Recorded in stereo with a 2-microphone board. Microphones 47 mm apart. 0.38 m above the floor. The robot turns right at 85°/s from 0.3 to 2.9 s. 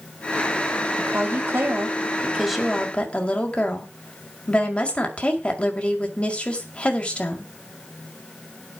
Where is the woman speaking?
130° right, 2.0 m; by 7.5 s 35° left, 2.0 m.